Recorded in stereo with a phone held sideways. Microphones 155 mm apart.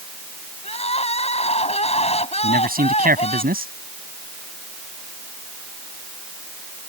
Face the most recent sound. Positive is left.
turn(degrees=-70)  # may be behind; listen again after turning